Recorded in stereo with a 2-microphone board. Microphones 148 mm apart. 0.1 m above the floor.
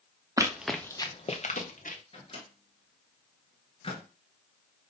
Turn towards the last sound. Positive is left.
turn(degrees=40)  # may be behind; listen again after turning